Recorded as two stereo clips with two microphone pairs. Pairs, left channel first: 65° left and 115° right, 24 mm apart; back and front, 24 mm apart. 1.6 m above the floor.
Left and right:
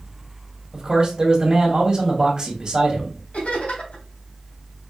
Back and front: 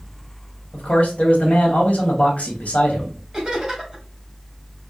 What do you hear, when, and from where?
0.7 s a man speaking: 165° right, 1.6 m
3.3 s laughter: 75° left, 3 m